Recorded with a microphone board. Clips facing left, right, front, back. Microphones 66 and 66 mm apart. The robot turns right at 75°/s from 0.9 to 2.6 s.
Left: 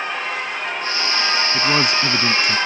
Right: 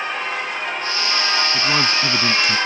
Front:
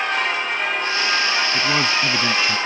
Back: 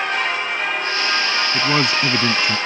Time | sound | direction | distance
1.5 | a man speaking | 120° left | ?